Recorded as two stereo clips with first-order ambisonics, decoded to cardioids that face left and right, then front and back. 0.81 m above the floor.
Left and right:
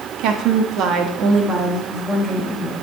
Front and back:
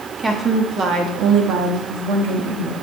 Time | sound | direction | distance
0.2 | a woman speaking | 110° right | 1.2 m